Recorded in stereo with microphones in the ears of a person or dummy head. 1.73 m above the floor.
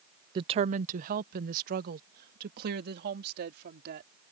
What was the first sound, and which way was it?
A woman speaking, 25° right (ahead or behind).